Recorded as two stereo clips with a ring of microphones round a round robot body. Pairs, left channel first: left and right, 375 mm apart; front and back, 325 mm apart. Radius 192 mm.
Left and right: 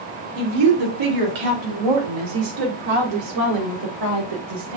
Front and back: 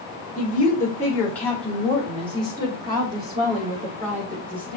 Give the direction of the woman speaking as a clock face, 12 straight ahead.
3 o'clock.